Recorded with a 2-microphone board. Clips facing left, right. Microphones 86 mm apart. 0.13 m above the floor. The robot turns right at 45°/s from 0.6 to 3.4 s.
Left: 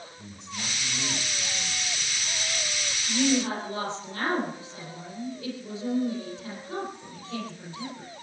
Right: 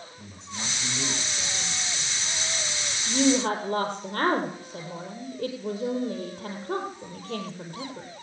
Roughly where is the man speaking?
Behind right.